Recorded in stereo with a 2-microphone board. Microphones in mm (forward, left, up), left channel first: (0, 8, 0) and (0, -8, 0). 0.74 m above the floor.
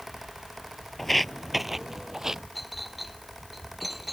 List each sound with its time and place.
1.0 s footsteps: 10° left (ahead or behind); by 2.4 s 35° right (ahead or behind)
2.5 s a clink: 5° right (ahead or behind)